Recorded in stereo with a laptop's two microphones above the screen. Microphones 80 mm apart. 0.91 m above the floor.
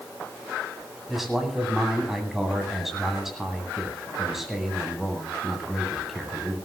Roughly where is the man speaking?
Centre.